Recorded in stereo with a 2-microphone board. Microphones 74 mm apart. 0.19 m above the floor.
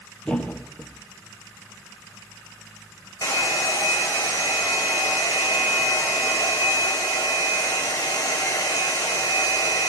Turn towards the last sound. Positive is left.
turn(degrees=50)  # may be behind; listen again after turning